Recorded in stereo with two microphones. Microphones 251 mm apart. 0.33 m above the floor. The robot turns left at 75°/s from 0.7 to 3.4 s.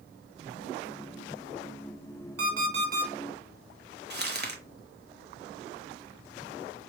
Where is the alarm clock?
100° right, 1.7 m; by 3.1 s 155° right, 1.7 m.